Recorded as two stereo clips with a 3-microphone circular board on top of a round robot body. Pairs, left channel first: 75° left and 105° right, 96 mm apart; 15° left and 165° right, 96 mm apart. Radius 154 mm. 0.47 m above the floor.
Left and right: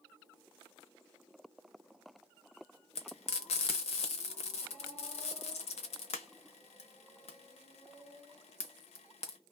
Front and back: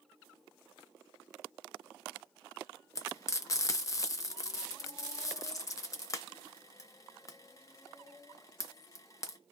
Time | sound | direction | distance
3.0 | frying | 70° left | 0.7 m